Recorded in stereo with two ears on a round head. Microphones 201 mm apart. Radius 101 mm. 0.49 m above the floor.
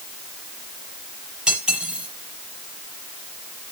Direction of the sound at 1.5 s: 5° right (ahead or behind).